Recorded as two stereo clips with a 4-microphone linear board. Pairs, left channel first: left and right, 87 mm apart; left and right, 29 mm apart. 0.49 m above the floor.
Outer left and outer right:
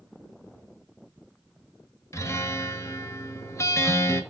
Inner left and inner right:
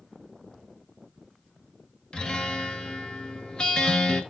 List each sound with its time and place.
2.1 s a guitar: 30° left (ahead or behind), 1.0 m